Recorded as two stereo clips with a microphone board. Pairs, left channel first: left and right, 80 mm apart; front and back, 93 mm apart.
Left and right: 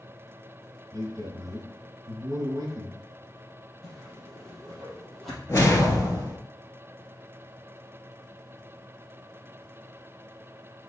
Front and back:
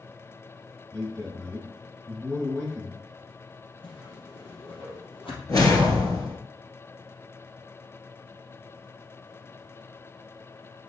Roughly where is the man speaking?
Right.